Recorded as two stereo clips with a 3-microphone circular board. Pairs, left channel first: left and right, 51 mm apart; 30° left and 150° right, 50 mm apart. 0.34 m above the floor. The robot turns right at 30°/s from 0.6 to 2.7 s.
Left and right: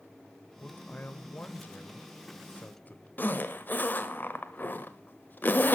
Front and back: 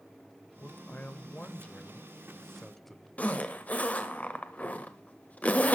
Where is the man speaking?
50° left, 1.0 m; by 3.1 s 115° left, 1.0 m.